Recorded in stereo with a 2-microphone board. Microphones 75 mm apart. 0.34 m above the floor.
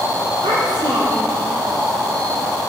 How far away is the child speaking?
About 6 m.